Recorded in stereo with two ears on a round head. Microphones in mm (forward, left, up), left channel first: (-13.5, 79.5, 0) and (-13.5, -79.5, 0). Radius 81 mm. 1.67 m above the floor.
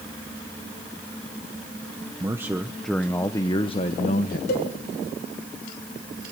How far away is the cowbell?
About 4.5 m.